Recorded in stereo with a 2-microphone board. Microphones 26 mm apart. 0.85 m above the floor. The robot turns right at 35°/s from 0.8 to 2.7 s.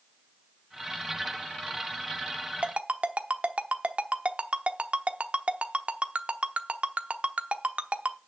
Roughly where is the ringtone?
Right.